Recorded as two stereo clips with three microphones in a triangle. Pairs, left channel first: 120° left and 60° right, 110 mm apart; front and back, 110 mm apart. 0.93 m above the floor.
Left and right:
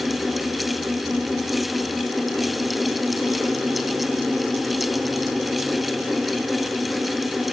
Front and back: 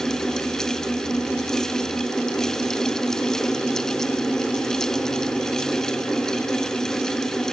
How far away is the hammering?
I don't hear hammering.